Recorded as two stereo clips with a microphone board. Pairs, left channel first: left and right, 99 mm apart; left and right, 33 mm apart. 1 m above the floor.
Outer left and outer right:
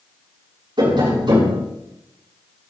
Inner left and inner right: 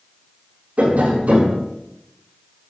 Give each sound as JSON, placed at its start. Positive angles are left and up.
{"t": 0.8, "sound": "tapping", "side_deg": -55, "distance_m": 6.5}